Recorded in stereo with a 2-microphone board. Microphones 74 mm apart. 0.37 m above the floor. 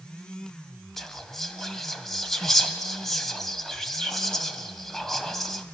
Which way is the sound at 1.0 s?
5° left (ahead or behind).